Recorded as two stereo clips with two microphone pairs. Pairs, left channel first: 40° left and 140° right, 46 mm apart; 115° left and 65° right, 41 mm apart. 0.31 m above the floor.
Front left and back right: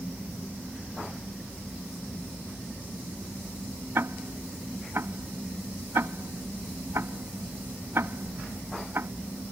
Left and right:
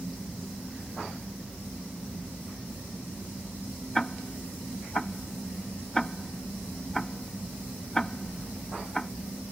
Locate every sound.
4.0 s ticking: 170° right